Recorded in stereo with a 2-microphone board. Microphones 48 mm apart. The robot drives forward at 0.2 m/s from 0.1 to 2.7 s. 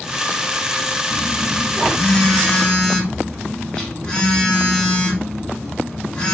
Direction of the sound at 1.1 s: 30° left (ahead or behind).